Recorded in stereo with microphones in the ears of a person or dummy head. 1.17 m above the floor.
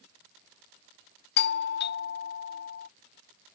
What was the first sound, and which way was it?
A doorbell, 50° left (ahead or behind).